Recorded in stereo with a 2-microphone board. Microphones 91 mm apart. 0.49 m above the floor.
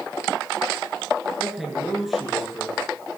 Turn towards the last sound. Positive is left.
turn(degrees=0)  # may be behind; listen again after turning